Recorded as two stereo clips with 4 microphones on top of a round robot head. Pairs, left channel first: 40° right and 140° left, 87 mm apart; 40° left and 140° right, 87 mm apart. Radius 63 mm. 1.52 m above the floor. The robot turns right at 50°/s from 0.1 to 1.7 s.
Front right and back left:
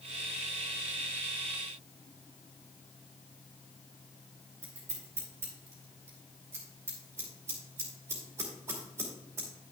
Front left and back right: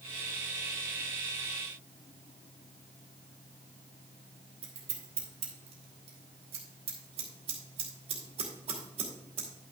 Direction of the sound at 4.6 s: 160° right.